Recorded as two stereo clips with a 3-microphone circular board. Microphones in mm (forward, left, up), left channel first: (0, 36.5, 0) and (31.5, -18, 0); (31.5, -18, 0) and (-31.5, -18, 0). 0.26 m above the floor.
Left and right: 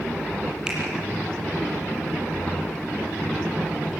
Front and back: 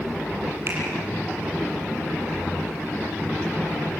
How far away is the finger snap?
About 5.5 m.